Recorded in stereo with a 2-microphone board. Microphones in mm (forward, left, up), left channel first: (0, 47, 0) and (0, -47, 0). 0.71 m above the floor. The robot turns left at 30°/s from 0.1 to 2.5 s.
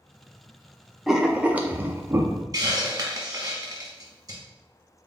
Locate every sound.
1.1 s writing: 5° right (ahead or behind), 0.5 m; by 2.4 s 35° right (ahead or behind), 0.5 m
2.5 s a hiss: 40° right (ahead or behind), 1.1 m